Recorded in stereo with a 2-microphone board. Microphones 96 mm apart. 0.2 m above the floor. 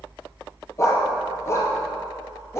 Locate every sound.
0.8 s a dog barking: 30° left (ahead or behind), 2 m